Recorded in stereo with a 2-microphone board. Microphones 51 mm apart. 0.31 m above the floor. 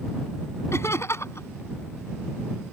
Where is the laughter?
65° left (ahead or behind).